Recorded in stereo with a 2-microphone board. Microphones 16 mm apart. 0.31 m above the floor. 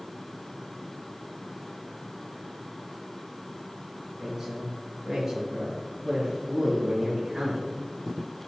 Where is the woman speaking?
35° right (ahead or behind), 4.5 m; by 7.7 s 50° right (ahead or behind), 7 m.